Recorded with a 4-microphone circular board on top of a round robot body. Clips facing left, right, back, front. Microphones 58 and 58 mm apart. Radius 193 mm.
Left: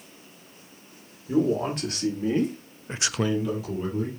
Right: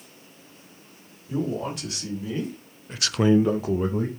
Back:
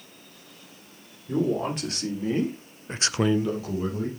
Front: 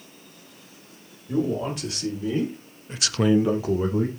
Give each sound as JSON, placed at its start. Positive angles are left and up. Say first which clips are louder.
{"t": 1.3, "sound": "a man speaking", "louder": "left 5 dB, even", "azimuth_deg": 130, "distance_m": 3.0}